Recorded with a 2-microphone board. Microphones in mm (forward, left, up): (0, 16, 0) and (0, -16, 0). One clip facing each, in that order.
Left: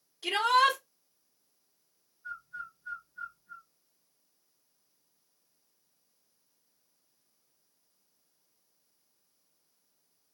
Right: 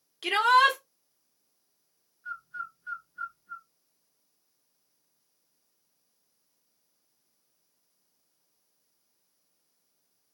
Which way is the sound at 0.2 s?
75° right (ahead or behind).